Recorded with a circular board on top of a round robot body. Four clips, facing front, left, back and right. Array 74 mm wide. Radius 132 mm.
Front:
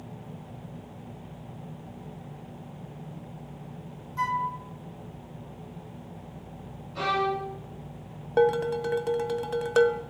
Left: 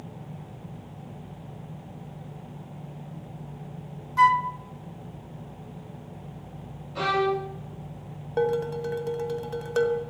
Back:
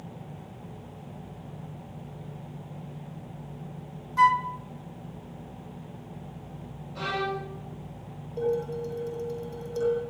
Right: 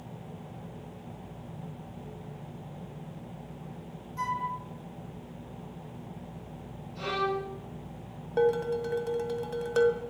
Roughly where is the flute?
Behind left.